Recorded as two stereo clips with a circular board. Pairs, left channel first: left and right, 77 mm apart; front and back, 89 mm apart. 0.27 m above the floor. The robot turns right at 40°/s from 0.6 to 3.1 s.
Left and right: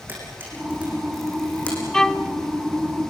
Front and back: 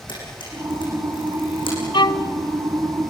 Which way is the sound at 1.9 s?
5° left.